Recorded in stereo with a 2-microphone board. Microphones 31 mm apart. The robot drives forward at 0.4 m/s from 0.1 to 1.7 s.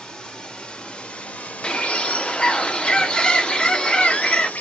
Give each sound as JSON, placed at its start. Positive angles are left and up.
{"t": 0.0, "sound": "running water", "side_deg": 25, "distance_m": 1.0}
{"t": 1.6, "sound": "a bird", "side_deg": 30, "distance_m": 0.5}